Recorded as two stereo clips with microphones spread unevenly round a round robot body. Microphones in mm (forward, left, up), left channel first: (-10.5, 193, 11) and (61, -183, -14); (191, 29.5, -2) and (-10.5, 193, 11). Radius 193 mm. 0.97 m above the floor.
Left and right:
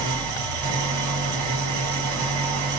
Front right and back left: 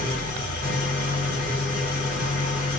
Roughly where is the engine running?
Right.